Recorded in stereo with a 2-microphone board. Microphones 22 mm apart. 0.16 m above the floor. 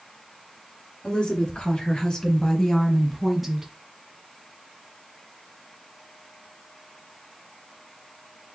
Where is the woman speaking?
55° left (ahead or behind), 3 m; by 3.7 s 15° right (ahead or behind), 1.6 m.